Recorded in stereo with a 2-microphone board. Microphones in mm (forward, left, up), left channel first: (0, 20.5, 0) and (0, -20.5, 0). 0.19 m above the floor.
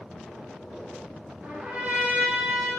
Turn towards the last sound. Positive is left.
turn(degrees=-40)  # may be behind; listen again after turning